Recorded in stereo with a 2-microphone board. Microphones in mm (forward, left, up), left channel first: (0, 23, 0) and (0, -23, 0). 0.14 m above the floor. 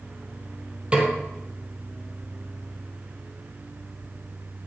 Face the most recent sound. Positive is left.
turn(degrees=-25)  # may be behind; listen again after turning